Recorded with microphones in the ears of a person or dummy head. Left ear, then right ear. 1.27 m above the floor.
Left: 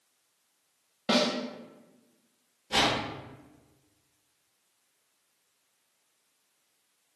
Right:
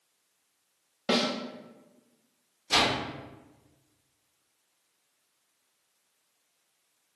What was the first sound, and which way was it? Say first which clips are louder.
A snare drum: left 1 dB; centre (ahead or behind).